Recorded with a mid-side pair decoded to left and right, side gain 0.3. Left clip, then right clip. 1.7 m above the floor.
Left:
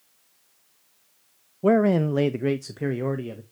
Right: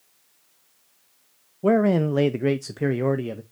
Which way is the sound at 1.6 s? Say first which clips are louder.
Even; 20° left.